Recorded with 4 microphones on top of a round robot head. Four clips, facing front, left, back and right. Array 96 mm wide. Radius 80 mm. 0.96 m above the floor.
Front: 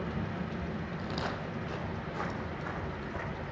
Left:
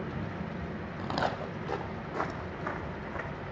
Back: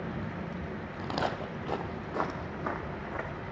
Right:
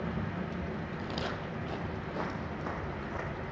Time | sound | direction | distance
1.0 | footsteps | 130° left | 1.6 m